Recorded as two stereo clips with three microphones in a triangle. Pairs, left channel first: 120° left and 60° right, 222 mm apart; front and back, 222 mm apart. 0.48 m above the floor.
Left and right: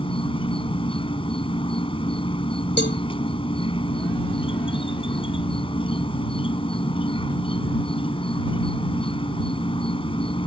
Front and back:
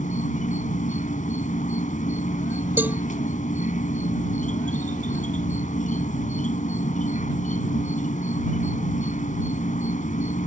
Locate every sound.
0.0 s an insect: 55° left
2.8 s a cowbell: 100° left